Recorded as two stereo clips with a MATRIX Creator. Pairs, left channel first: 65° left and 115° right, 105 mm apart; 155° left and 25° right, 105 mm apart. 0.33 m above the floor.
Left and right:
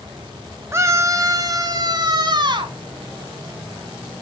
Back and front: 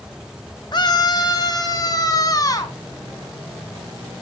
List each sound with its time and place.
0.7 s a scream: 170° right, 2.0 m; by 2.7 s 150° right, 3.5 m